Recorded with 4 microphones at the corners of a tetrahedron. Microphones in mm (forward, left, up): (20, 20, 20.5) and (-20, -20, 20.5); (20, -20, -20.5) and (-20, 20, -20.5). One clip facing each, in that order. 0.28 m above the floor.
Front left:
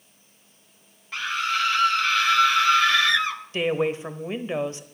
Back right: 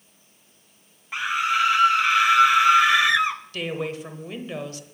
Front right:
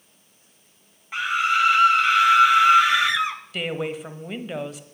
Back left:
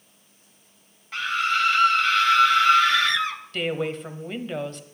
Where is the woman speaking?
35° left, 0.9 m.